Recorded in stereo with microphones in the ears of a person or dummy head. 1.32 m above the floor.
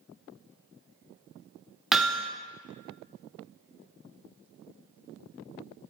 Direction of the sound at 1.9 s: Centre (ahead or behind).